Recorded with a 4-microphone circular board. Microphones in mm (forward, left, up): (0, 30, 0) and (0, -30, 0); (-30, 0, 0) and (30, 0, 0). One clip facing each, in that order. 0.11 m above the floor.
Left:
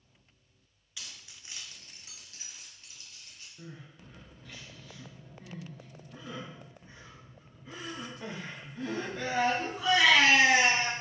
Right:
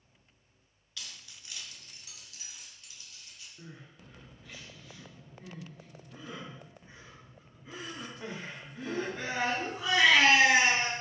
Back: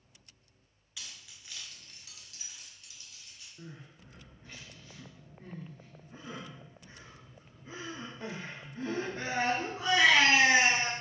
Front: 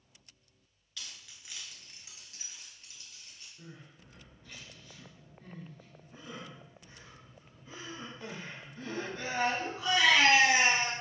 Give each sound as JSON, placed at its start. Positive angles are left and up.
{"t": 1.0, "sound": "keys jangling", "azimuth_deg": 130, "distance_m": 0.7}
{"t": 3.6, "sound": "crying", "azimuth_deg": -175, "distance_m": 1.1}